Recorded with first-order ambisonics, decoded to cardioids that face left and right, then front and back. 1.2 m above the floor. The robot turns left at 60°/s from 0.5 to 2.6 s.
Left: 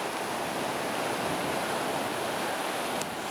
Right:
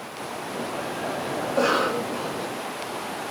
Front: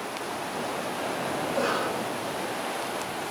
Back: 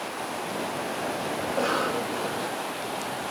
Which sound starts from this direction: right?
A cough, at 1.4 s.